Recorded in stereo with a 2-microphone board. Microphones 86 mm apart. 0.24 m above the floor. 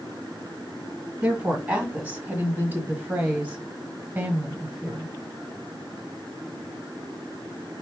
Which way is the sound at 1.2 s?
15° right (ahead or behind).